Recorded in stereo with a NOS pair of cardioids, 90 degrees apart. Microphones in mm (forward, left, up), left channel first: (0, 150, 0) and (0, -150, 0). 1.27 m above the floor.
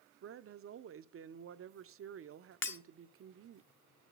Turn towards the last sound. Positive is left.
turn(degrees=40)